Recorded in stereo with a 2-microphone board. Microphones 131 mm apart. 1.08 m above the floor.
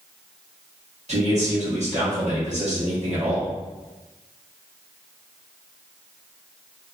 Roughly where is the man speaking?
Right.